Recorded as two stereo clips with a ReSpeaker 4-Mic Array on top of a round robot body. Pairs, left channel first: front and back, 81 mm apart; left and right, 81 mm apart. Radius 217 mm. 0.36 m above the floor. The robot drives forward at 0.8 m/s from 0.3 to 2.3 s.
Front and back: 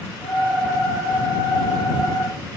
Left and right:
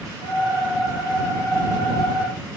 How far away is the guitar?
I don't hear a guitar.